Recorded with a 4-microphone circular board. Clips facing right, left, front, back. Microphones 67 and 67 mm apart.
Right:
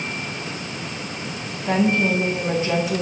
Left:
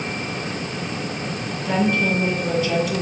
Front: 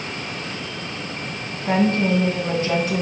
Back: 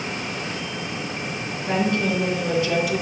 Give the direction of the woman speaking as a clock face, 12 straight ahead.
1 o'clock.